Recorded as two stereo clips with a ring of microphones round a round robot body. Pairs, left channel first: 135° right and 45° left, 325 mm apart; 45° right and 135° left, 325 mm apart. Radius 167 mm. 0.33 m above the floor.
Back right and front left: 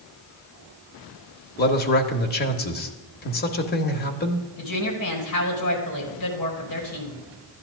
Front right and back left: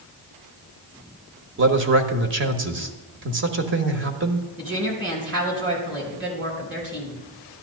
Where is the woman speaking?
170° right, 4 m.